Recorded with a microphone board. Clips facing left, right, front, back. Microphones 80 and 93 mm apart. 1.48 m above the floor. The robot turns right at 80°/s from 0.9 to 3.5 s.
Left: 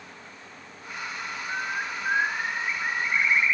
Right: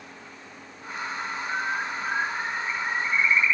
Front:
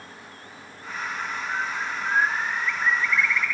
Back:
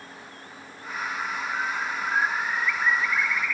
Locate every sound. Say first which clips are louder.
1.5 s a bird: right 2 dB, front 1 dB; 15° right, 1.1 m; by 3.5 s 145° left, 1.1 m